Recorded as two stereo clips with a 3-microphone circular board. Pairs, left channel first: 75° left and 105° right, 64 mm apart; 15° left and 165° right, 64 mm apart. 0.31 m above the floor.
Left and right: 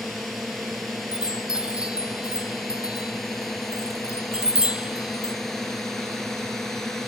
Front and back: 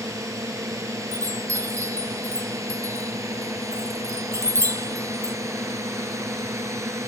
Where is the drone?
165° left; by 7.1 s 160° left.